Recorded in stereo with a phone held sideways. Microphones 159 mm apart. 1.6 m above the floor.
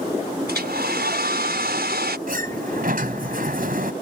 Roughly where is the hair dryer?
Right.